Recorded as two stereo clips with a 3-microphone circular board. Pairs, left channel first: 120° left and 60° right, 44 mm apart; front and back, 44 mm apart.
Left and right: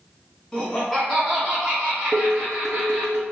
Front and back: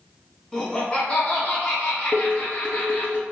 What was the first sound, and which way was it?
Laughter, 65° left.